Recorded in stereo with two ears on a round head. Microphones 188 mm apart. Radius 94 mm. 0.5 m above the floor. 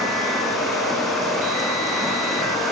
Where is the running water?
Centre (ahead or behind), 7 m.